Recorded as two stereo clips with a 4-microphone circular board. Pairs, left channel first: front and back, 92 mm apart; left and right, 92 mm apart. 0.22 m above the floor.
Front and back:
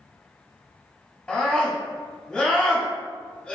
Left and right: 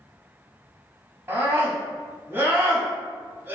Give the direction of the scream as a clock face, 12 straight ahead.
2 o'clock.